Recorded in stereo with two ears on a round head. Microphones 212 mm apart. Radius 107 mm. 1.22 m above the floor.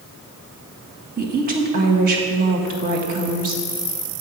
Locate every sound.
1.2 s a woman speaking: 40° right (ahead or behind), 1.7 m